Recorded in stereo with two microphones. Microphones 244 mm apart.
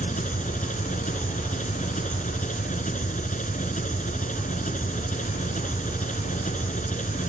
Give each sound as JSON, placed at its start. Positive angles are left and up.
{"t": 0.0, "sound": "an engine running", "side_deg": 35}